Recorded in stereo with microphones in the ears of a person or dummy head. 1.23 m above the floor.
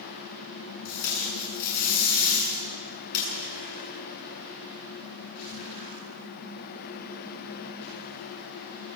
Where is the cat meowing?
No cat meowing in this recording.